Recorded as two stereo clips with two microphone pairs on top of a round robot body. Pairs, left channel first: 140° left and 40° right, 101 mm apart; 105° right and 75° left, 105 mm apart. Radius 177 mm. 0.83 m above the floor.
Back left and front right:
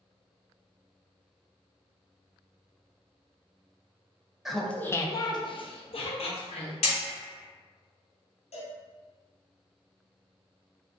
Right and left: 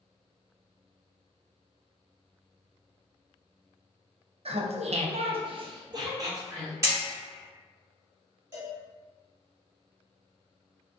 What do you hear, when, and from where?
4.5 s laughter: 50° left, 0.6 m; by 6.7 s 140° left, 1.2 m
6.8 s hammering: 125° left, 0.7 m
8.5 s a cowbell: 140° left, 1.5 m